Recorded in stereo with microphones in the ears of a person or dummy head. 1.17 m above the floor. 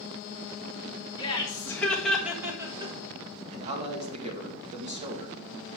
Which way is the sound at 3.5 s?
30° right (ahead or behind).